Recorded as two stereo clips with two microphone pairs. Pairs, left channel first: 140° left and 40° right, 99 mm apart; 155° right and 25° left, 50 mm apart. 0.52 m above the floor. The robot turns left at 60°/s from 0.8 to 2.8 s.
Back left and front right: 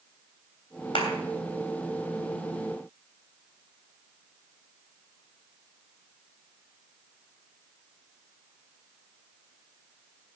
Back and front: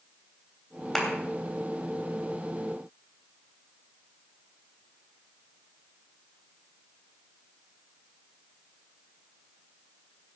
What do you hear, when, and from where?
0.9 s a clap: 125° left, 3 m; by 1.1 s 115° left, 3 m